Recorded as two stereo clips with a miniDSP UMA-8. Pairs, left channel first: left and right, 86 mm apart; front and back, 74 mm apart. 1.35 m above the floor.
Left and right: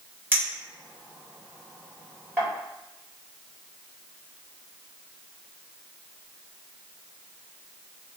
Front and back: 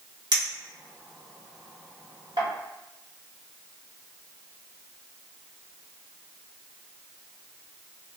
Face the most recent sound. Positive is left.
turn(degrees=-155)